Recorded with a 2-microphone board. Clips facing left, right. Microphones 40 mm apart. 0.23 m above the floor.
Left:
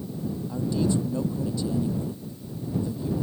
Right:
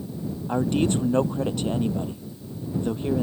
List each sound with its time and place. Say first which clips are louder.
0.5 s a man speaking: right 4 dB; 55° right (ahead or behind)